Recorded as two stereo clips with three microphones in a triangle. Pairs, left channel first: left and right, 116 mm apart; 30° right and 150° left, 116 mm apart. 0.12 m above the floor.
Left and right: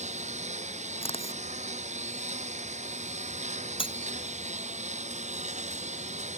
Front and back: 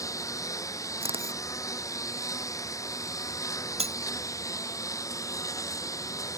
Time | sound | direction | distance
0.0 | a lawn mower | 95° right | ?
1.0 | a camera shutter | 120° left | ?
3.8 | breaking glass | 125° left | ?